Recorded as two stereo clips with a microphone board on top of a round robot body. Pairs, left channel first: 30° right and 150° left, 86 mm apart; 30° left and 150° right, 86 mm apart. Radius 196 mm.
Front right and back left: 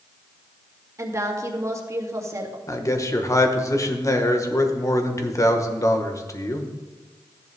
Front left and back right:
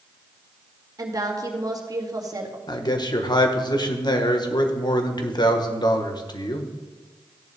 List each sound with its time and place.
1.0 s a woman speaking: 170° right, 2 m
2.7 s a man speaking: 15° left, 1.7 m